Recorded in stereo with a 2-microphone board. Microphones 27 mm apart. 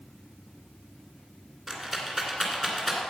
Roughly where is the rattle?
Centre.